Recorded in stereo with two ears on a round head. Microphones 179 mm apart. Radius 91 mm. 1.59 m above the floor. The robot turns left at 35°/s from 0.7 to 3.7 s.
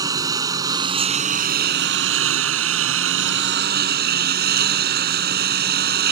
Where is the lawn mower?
20° right; by 6.1 s 125° right.